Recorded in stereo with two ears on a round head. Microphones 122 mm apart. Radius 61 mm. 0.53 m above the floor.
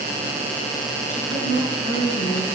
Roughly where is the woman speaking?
Left.